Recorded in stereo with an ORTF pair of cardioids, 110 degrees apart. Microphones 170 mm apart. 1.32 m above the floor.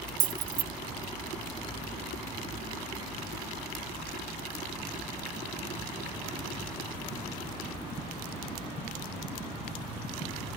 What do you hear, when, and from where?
0.2 s keys jangling: 55° right